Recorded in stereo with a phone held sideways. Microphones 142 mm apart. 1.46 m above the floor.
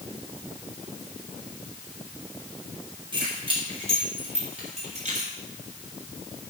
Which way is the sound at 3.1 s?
35° right (ahead or behind).